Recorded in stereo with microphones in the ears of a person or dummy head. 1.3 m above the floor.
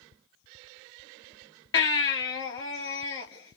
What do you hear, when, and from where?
1.7 s a baby crying: 25° left (ahead or behind), 2.5 m